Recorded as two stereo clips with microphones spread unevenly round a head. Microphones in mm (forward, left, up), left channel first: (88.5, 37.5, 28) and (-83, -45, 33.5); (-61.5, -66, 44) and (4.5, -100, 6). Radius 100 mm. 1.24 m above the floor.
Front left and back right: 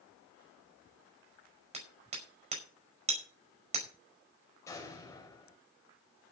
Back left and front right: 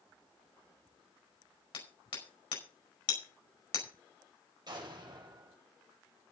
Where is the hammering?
150° left, 5 m.